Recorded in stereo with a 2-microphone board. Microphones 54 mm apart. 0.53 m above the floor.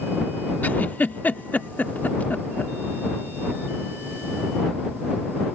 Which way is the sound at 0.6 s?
35° left (ahead or behind).